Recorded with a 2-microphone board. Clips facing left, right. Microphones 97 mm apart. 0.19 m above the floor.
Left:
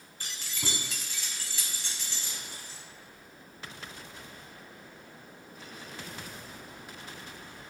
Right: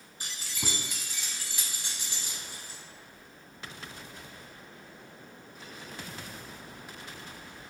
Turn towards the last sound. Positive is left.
turn(degrees=-15)  # may be behind; listen again after turning